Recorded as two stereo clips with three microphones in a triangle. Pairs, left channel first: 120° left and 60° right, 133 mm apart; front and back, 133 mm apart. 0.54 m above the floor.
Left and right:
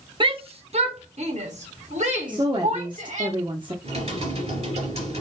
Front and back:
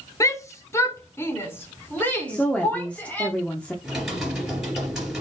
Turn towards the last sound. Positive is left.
turn(degrees=-95)